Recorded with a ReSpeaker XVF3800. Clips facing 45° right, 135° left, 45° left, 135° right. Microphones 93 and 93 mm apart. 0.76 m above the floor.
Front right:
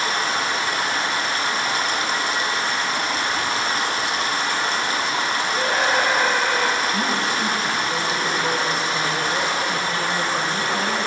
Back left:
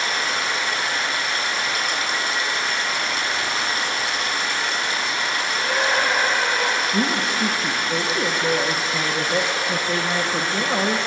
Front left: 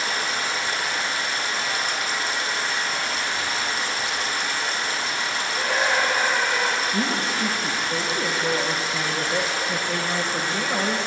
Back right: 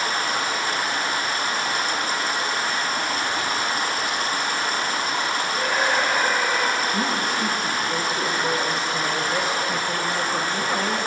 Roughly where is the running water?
Right.